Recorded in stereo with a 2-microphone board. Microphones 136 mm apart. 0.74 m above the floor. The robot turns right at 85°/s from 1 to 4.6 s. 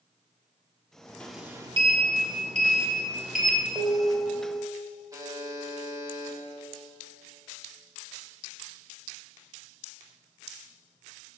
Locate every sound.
1.2 s a sliding door: 170° left, 1.4 m; by 3.6 s 20° left, 1.4 m
3.8 s dishes clattering: 145° right, 2.5 m; by 4.6 s 70° right, 2.5 m
5.1 s a buzzer: 30° right (ahead or behind), 2.5 m